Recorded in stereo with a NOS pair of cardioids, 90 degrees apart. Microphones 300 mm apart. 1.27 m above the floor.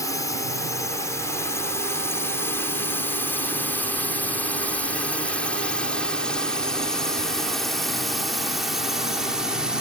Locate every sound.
0.0 s a drone: 10° left; by 9.8 s straight ahead